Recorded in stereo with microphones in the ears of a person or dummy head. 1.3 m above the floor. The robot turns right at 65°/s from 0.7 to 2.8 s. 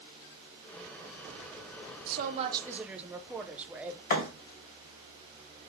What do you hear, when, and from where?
2.1 s a woman speaking: 55° right, 0.5 m; by 4.0 s 5° right, 0.5 m
4.1 s a thud: 45° left (ahead or behind), 1.9 m